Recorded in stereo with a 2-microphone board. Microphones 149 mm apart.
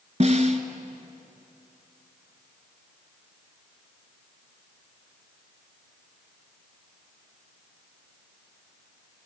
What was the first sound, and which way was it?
A snare drum, 50° right (ahead or behind).